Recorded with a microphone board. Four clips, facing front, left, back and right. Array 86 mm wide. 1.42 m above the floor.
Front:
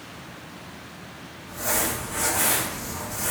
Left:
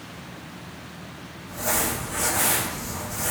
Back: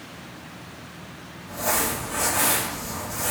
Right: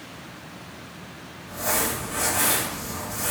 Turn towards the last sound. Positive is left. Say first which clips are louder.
# even, back 2 dB
turn(degrees=-170)